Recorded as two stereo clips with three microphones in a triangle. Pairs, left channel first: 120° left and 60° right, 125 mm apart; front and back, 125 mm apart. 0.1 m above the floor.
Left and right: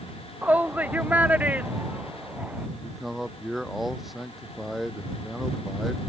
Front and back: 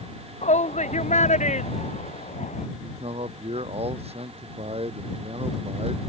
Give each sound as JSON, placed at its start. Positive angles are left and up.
{"t": 0.4, "sound": "a shout", "azimuth_deg": 20}
{"t": 2.8, "sound": "a man speaking", "azimuth_deg": -150}